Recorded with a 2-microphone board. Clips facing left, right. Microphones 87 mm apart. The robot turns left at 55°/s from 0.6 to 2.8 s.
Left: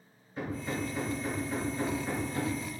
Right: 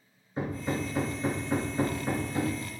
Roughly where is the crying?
No crying in this recording.